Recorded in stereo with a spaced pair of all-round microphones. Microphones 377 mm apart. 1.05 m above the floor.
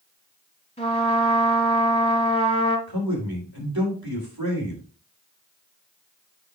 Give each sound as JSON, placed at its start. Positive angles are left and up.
{"t": 0.8, "sound": "a trumpet", "side_deg": 15, "distance_m": 1.5}
{"t": 2.9, "sound": "a man speaking", "side_deg": -65, "distance_m": 3.0}